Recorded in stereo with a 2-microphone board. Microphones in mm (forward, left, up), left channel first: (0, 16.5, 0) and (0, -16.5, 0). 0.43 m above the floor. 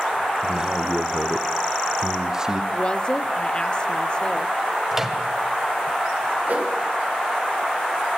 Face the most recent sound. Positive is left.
turn(degrees=-55)  # may be behind; listen again after turning